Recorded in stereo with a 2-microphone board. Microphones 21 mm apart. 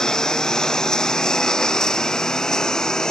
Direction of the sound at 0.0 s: 35° left (ahead or behind).